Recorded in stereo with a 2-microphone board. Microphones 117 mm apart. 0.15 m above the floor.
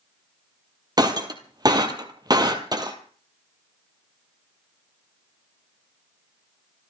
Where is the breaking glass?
35° right (ahead or behind), 2 m.